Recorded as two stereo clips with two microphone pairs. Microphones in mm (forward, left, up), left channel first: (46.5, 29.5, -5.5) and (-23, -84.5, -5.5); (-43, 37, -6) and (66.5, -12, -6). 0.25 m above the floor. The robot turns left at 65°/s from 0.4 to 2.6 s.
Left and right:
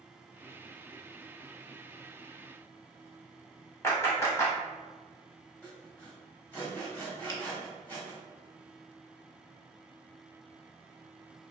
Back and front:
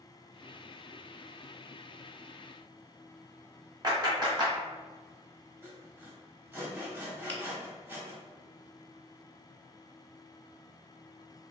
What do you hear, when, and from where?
3.8 s a clap: straight ahead, 1.4 m
5.6 s sawing: 10° left, 1.4 m
7.3 s a finger snap: 95° left, 0.9 m